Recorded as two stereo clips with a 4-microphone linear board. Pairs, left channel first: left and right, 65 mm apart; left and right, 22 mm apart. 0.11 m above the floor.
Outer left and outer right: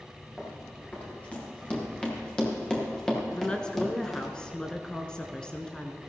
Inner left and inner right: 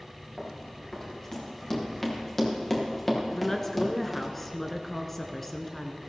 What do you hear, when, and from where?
0.4 s running footsteps: 25° left (ahead or behind), 5 m; by 4.3 s centre (ahead or behind), 3 m
3.3 s a woman speaking: 15° left (ahead or behind), 1.1 m